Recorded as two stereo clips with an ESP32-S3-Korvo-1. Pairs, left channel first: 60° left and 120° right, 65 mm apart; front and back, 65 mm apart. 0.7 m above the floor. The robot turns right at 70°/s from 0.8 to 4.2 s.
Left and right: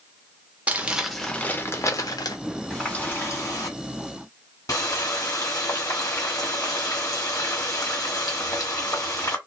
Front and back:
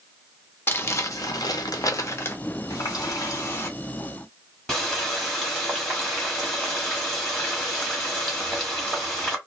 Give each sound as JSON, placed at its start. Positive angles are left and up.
{"t": 0.7, "sound": "crumpling", "azimuth_deg": -55, "distance_m": 0.6}
{"t": 2.7, "sound": "a running tap", "azimuth_deg": -25, "distance_m": 1.4}